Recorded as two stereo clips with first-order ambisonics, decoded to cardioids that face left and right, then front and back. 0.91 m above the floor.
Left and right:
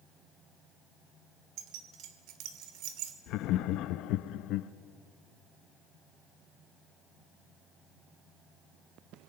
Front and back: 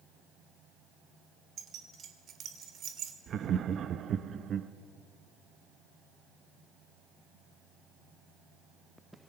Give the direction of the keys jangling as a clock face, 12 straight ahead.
4 o'clock.